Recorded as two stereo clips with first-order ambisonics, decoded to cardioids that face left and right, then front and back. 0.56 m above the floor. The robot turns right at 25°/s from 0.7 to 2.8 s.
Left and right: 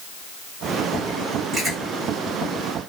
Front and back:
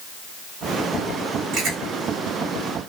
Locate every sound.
1.5 s chewing: 160° right, 1.6 m; by 1.8 s 155° right, 1.6 m